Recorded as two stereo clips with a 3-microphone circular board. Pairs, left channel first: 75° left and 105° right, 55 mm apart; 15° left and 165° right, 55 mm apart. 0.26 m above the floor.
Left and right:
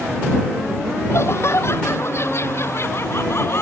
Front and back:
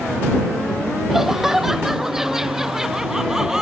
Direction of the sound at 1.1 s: 110° left.